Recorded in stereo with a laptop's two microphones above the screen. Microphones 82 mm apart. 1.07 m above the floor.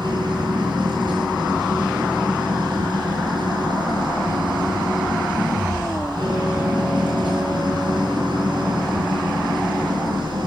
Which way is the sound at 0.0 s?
85° right.